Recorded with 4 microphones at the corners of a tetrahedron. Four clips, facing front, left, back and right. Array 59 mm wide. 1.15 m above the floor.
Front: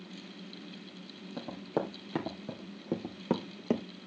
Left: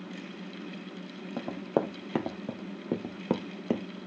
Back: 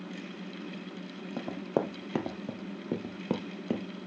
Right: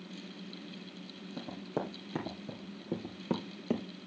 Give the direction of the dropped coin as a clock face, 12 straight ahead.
I don't hear a dropped coin.